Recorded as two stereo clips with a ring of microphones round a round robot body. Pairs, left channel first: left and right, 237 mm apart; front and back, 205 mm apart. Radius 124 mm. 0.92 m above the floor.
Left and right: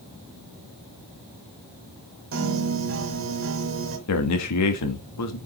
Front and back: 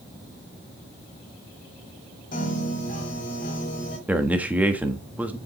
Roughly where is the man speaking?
Left.